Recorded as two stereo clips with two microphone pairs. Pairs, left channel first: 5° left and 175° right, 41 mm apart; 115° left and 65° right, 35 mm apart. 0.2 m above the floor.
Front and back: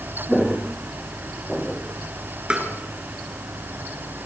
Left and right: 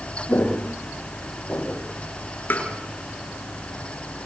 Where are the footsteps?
95° left, 4.5 m; by 1.8 s 85° left, 6.5 m.